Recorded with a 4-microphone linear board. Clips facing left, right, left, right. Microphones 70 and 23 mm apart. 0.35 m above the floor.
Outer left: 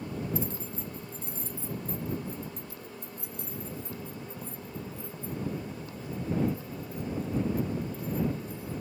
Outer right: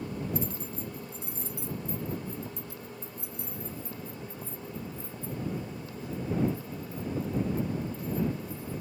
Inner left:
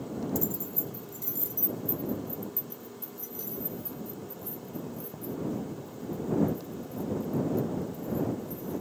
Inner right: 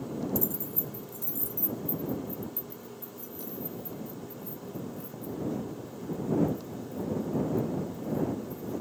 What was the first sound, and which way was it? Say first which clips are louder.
Keys jangling: even, even; 25° left (ahead or behind).